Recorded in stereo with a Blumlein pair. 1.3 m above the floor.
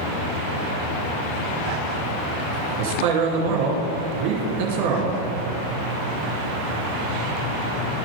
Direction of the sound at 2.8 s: 45° right.